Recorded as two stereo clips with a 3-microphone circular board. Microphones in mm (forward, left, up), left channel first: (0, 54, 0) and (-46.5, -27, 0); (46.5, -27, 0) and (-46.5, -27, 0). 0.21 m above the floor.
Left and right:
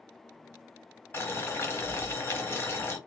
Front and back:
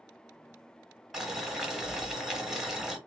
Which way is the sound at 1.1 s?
95° left.